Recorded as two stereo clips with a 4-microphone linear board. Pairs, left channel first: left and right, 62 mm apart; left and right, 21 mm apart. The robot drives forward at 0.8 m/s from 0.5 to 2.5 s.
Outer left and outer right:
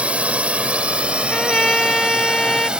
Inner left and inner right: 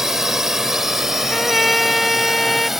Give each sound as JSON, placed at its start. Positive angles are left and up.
{"t": 0.0, "sound": "a drone", "side_deg": -20}
{"t": 1.3, "sound": "a trumpet", "side_deg": 10}